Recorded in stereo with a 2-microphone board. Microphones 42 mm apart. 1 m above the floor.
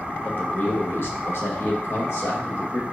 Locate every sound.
0.2 s a man speaking: 50° left (ahead or behind), 1.0 m; by 2.8 s 60° left (ahead or behind), 1.7 m